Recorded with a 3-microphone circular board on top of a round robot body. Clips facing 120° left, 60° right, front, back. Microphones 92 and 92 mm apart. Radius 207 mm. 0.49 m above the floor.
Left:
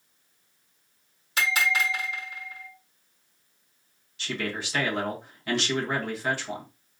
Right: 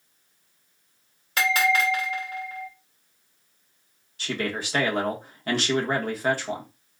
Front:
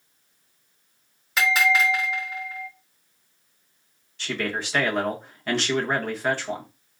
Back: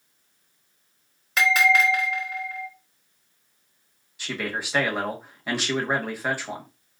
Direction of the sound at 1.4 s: 90° right.